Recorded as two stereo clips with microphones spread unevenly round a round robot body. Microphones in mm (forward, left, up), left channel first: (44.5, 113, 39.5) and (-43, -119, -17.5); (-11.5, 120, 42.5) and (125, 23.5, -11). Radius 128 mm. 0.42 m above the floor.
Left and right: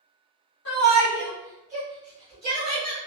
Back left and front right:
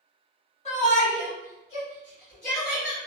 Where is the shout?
100° left, 1.2 m; by 3.0 s 155° right, 1.8 m.